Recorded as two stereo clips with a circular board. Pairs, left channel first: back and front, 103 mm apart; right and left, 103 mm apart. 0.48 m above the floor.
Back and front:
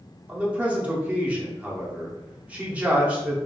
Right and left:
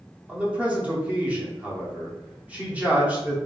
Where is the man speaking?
45° left, 0.7 m.